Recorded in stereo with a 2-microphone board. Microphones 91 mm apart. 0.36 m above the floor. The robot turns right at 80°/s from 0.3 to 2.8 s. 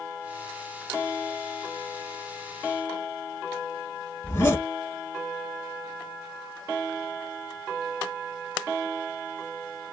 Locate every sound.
4.2 s a zipper: 25° left (ahead or behind), 1.1 m